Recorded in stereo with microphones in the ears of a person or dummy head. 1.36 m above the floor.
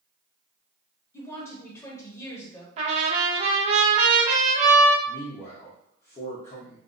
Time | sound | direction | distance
1.1 | a woman speaking | 15° left (ahead or behind) | 1.0 m
2.8 | a trumpet | 35° right (ahead or behind) | 0.5 m
5.1 | a man speaking | 35° left (ahead or behind) | 0.5 m